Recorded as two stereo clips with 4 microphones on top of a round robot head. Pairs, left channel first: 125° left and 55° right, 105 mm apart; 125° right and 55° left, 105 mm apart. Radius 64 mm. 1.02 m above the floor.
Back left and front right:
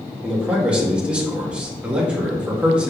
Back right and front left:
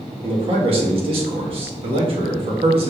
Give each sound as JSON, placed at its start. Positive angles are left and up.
{"t": 0.2, "sound": "a man speaking", "azimuth_deg": 25, "distance_m": 1.3}